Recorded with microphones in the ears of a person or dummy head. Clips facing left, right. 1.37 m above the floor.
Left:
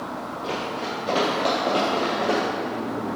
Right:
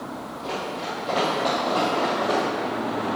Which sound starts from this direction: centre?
Running footsteps, at 0.4 s.